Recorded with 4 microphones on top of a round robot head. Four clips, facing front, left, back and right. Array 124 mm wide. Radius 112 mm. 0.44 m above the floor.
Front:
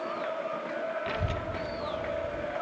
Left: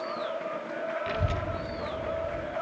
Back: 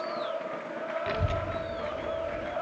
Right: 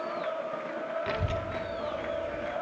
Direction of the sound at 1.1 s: 125° right.